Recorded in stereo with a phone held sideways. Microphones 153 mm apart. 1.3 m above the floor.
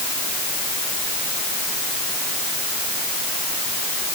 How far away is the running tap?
No running tap in this recording.